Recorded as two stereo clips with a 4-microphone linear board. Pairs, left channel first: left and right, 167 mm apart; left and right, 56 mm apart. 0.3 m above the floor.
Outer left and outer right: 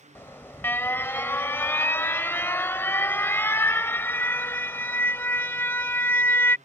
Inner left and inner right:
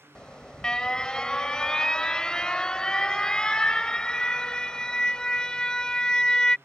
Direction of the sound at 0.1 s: 15° left (ahead or behind).